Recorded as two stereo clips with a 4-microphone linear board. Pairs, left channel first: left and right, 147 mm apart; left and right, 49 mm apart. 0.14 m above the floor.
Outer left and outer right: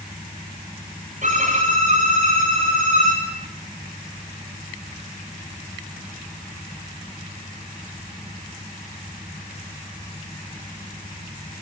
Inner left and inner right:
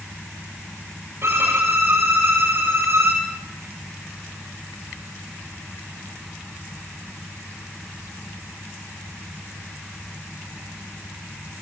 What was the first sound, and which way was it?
A violin, 50° right (ahead or behind).